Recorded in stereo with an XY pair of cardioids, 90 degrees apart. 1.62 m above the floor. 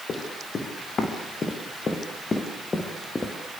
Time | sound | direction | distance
0.1 | running footsteps | 55° left | 6.5 m